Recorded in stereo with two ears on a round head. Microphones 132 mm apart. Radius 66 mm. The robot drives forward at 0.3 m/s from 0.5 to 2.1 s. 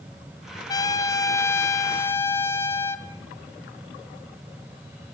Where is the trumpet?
25° left (ahead or behind), 0.8 m; by 3.1 s 20° left (ahead or behind), 1.2 m.